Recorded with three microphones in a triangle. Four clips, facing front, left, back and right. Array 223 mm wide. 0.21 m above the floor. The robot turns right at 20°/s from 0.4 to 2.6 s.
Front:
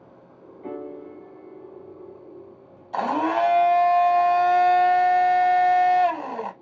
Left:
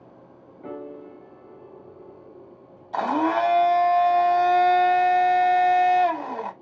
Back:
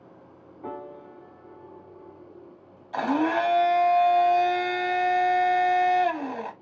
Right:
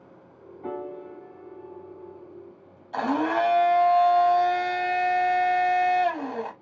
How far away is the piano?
About 2 m.